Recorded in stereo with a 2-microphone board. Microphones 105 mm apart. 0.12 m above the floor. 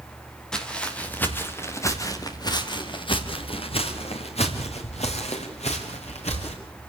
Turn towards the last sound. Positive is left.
turn(degrees=85)